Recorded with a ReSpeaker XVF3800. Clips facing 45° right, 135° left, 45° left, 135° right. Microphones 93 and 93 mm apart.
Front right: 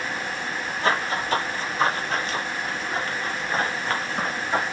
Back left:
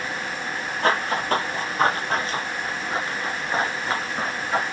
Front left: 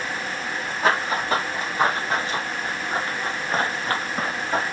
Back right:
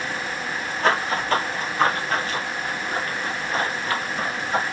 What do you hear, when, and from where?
0.8 s running footsteps: 125° left, 2.5 m; by 4.6 s 35° left, 1.9 m